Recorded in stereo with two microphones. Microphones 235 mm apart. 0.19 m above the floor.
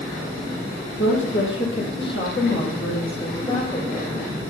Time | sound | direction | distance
1.0 | a woman speaking | 60° left (ahead or behind) | 5.5 m